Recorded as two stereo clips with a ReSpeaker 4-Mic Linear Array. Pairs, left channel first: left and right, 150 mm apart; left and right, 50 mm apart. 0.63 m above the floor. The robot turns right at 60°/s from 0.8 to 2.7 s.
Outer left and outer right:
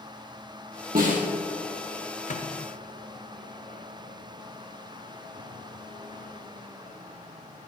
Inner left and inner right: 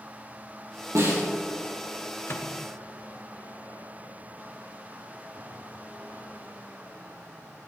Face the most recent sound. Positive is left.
turn(degrees=60)  # may be behind; listen again after turning